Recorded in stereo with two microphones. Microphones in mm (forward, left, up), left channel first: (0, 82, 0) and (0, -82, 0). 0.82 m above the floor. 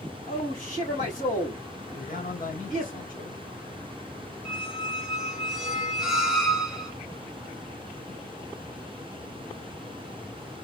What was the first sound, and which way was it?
A man speaking, 60° left (ahead or behind).